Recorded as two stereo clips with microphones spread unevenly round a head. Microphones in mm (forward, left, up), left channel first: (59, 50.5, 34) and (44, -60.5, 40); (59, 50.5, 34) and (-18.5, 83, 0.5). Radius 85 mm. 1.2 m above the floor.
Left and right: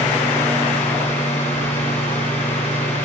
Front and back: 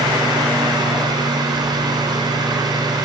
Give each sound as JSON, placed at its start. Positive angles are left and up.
{"t": 0.0, "sound": "a fan", "azimuth_deg": 125, "distance_m": 6.5}